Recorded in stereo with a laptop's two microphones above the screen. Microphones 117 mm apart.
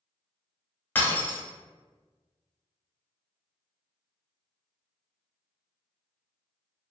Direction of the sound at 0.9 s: 20° left (ahead or behind).